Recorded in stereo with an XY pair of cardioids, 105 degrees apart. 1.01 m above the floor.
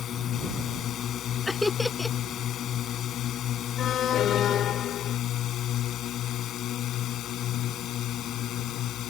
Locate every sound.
0.0 s a drone: 60° left; by 9.1 s 75° left
1.5 s laughter: 15° left
3.8 s an alarm: 65° left